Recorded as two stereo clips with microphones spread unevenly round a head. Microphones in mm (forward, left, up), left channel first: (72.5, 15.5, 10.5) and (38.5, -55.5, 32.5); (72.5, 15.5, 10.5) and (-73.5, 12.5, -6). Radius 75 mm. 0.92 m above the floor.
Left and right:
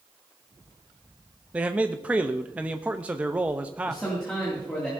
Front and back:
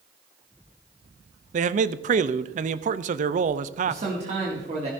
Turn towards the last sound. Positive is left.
turn(degrees=140)